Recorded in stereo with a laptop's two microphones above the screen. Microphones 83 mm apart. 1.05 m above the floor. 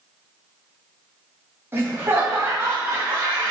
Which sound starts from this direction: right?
Laughter, at 1.7 s.